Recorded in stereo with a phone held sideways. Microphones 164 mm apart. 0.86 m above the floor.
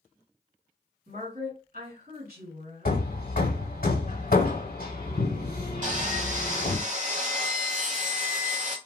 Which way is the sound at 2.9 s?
60° left (ahead or behind).